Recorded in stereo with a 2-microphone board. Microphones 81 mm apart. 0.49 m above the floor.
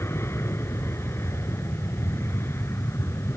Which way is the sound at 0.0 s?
30° left (ahead or behind).